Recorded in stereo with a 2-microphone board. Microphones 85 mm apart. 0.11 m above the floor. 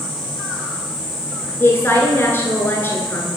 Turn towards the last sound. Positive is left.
turn(degrees=25)  # may be behind; listen again after turning